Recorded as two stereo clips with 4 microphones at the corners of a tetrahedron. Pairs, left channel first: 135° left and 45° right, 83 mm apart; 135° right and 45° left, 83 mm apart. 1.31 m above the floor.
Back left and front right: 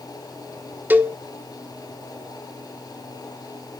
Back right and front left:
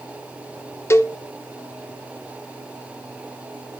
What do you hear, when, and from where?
0.9 s a cowbell: 105° right, 0.8 m